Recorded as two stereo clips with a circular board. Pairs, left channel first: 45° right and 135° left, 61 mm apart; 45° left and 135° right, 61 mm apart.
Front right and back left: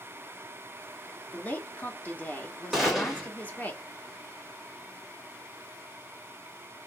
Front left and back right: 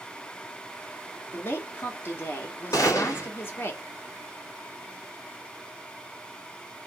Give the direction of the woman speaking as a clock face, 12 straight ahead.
12 o'clock.